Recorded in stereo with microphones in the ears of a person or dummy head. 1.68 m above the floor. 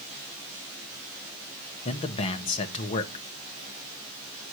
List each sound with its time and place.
1.9 s a man speaking: 30° left (ahead or behind), 1.3 m